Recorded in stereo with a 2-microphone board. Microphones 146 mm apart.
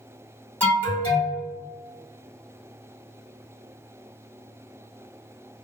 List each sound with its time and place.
0.6 s an alarm: 10° left (ahead or behind), 1.7 m